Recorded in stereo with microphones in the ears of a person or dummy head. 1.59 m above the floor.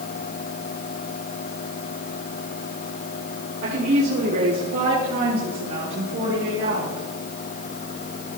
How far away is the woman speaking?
About 5 m.